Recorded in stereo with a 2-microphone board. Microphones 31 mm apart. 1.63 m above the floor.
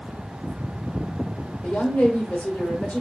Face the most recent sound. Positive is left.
turn(degrees=75)  # may be behind; listen again after turning